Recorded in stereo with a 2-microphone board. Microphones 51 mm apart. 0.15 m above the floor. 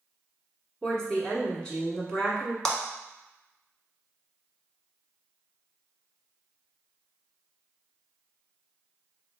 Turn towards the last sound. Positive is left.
turn(degrees=10)  # may be behind; listen again after turning